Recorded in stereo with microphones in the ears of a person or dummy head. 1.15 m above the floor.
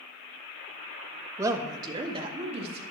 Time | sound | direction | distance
1.4 | a woman speaking | 15° right (ahead or behind) | 0.9 m